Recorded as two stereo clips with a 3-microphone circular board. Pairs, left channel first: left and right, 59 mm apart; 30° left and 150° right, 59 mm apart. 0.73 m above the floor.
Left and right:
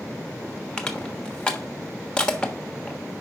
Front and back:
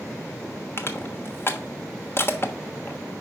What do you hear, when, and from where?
0.8 s crushing: 25° left, 1.1 m